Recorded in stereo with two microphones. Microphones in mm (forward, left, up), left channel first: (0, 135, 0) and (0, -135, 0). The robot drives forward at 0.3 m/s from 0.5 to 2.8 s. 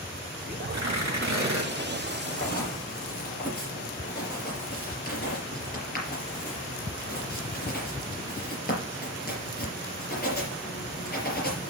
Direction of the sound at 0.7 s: 80° right.